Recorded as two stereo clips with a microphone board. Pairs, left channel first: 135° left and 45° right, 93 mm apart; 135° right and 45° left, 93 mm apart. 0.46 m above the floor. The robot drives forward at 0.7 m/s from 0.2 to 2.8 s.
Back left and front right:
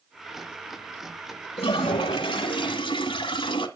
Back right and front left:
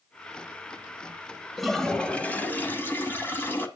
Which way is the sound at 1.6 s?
135° left.